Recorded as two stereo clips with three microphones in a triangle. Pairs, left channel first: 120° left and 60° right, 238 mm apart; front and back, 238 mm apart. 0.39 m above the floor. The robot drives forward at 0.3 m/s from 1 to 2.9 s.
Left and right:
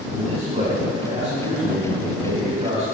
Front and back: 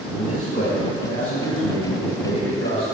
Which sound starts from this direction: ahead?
A man speaking, at 0.1 s.